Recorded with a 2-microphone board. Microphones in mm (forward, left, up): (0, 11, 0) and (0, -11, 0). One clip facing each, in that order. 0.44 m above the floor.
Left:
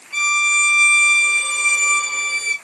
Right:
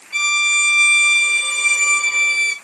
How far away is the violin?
About 1.4 m.